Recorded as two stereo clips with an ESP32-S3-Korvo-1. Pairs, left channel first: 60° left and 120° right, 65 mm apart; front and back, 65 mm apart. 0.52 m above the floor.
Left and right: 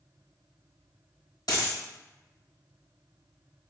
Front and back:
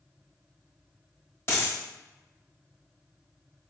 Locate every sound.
1.5 s a dropped coin: 45° left, 0.8 m